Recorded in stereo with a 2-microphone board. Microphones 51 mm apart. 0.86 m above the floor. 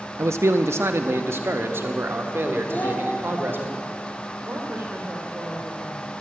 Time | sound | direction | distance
0.2 | a man speaking | 65° right (ahead or behind) | 0.7 m
2.7 | a child speaking | 35° left (ahead or behind) | 3 m
4.5 | a woman speaking | 55° right (ahead or behind) | 2.5 m